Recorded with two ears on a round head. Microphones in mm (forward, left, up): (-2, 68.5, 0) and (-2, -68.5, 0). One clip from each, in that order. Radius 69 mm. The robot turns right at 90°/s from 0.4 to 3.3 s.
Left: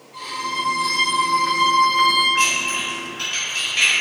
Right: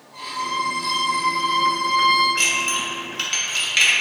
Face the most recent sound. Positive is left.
turn(degrees=-55)  # may be behind; listen again after turning